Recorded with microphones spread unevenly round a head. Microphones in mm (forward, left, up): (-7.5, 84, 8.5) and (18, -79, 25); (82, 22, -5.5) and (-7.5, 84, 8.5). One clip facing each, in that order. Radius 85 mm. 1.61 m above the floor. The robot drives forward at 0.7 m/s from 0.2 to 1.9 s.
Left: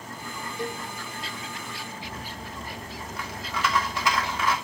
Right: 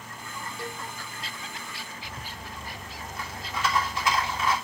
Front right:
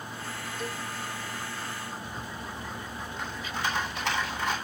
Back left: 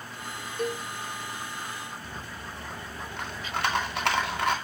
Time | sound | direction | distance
0.6 | a cowbell | 175° left | 1.0 m
2.0 | a rattle | 130° left | 2 m